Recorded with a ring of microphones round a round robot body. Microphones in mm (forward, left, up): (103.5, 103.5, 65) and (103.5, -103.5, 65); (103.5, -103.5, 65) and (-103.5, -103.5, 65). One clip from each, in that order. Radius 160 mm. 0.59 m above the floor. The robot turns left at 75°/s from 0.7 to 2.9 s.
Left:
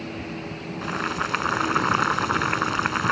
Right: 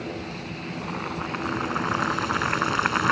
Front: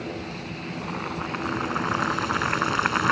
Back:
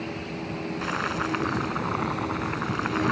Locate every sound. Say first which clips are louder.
0.8 s boiling: left 6 dB, back 4 dB; 145° left; by 3.1 s 15° right